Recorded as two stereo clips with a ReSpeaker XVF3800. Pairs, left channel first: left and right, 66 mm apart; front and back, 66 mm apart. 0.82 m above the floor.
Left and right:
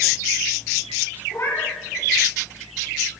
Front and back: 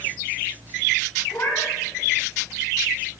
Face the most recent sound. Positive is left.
turn(degrees=45)